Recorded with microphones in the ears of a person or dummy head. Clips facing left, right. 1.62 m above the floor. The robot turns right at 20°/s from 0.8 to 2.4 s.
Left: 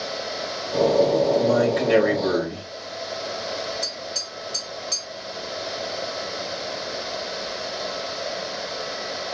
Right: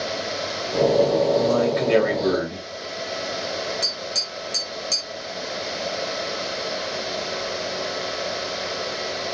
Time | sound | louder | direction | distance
1.4 | a man speaking | even | 15° left (ahead or behind) | 4.5 m
3.8 | tapping | right 2 dB | 25° right (ahead or behind) | 4.5 m